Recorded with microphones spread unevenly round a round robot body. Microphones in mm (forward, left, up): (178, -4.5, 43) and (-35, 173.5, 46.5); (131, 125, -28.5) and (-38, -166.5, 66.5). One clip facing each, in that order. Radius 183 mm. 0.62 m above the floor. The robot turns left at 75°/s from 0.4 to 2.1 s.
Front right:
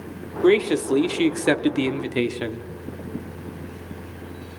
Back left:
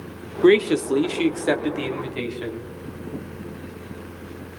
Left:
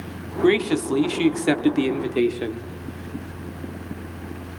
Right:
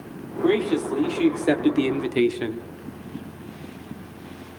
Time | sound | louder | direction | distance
0.4 | a man speaking | back left 2 dB, left 2 dB | 85° left | 1.0 m